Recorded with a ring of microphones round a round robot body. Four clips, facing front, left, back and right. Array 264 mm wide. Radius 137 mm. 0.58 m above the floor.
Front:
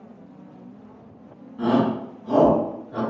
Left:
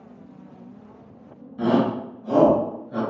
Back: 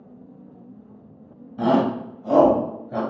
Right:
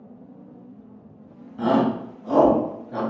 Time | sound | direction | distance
1.6 | a shout | 175° left | 2.5 m